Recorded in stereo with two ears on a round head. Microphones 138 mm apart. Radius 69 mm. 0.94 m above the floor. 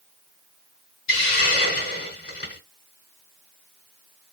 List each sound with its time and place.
1.1 s a hiss: 70° left (ahead or behind), 3 m